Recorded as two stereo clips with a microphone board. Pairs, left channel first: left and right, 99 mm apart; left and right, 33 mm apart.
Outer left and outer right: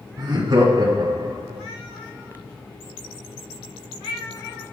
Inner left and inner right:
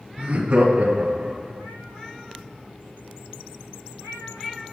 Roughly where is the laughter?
Right.